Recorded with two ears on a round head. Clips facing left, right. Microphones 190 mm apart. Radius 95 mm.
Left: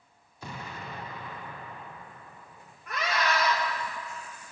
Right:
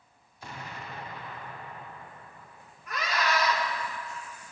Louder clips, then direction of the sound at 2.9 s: Left 1 dB; 45° left (ahead or behind).